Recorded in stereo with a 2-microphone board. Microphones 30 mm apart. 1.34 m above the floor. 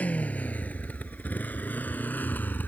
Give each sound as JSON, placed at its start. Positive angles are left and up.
{"t": 0.0, "sound": "a motorcycle", "side_deg": 55}